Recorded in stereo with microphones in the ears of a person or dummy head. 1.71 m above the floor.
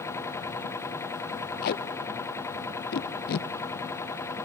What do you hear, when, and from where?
0.0 s a machine running: 10° left (ahead or behind), 0.8 m
1.6 s tape being pulled: 50° left (ahead or behind), 0.6 m